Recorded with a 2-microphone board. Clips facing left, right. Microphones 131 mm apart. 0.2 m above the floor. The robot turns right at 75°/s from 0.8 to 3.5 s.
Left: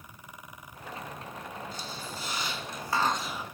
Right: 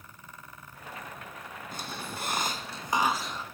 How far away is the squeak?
About 1.3 m.